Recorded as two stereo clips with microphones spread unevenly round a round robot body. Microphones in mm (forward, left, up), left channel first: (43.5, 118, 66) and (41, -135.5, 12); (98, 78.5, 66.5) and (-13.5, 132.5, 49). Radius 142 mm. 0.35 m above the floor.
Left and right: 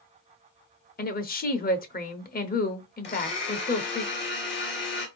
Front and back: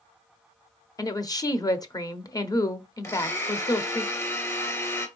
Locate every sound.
1.0 s a woman speaking: 35° left, 1.0 m
3.0 s a blender: 40° left, 2.5 m